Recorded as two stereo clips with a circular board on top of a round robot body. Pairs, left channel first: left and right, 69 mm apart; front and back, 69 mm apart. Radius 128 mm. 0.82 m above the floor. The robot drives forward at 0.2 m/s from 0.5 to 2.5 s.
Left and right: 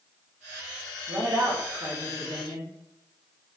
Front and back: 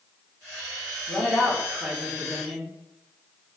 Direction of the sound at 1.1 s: 105° right.